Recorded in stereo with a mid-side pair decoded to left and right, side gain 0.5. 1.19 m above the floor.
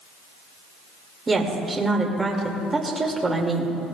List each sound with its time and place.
1.3 s a woman speaking: 20° right, 2.5 m